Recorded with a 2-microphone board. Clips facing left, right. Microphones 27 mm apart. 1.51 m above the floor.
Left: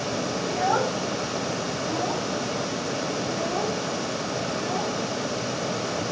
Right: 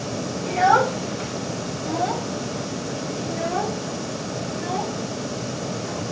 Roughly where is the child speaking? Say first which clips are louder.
Right 8 dB; right.